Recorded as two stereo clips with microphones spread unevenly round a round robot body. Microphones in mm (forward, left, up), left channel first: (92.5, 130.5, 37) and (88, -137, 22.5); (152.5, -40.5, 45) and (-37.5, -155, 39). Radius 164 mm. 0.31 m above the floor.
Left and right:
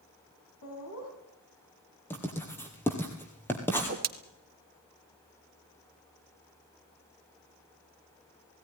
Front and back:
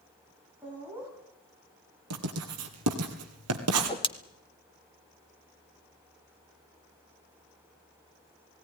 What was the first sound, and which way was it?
Laughter, 130° left.